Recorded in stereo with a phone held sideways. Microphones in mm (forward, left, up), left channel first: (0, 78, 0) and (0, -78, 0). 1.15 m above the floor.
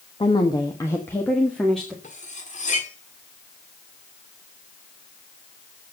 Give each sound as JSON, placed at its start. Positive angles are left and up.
{"t": 0.2, "sound": "a woman speaking", "side_deg": 35, "distance_m": 1.3}
{"t": 2.0, "sound": "cutlery clinking", "side_deg": 55, "distance_m": 1.7}